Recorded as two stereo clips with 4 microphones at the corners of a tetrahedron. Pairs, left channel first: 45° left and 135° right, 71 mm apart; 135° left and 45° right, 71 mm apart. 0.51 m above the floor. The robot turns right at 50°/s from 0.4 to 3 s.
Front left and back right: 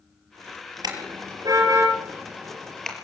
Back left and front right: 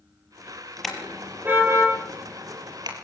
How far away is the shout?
I don't hear a shout.